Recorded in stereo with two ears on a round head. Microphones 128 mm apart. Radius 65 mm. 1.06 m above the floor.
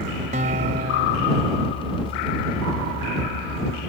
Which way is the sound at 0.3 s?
50° right (ahead or behind).